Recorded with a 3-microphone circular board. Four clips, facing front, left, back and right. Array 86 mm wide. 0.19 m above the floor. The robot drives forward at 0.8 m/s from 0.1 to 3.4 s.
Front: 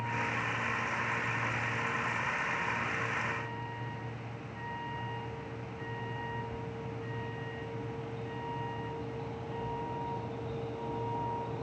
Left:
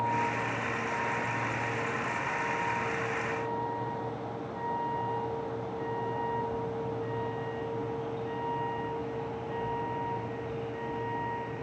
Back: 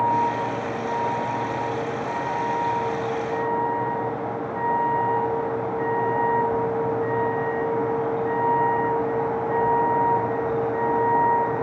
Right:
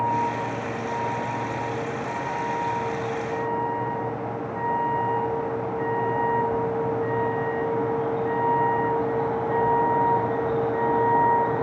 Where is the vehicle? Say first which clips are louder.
Right 6 dB, back 14 dB; 165° right; by 11.6 s 135° right.